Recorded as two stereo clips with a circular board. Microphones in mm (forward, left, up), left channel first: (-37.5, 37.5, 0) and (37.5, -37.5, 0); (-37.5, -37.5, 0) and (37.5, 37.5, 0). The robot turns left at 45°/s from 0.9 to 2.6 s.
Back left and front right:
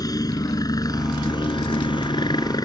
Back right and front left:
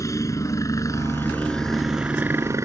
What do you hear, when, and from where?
0.0 s a helicopter: 175° left; by 2.6 s 100° left